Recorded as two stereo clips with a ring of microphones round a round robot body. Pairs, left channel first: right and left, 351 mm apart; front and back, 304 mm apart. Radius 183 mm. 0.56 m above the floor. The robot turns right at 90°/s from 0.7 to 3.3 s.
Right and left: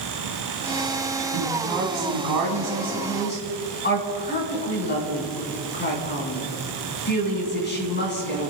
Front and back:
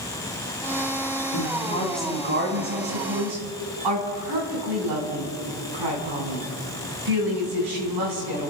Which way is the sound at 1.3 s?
30° left.